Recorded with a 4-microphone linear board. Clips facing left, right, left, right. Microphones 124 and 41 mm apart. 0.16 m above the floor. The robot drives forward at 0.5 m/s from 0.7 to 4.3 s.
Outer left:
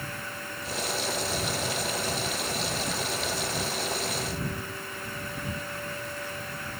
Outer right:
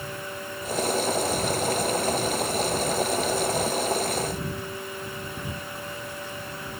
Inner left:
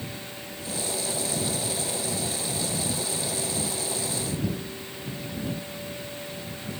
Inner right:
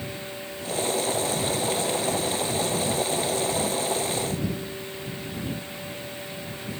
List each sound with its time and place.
Only background noise.